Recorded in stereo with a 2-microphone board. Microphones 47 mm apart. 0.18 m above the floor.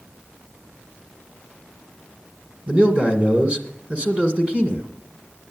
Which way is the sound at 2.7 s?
30° right (ahead or behind).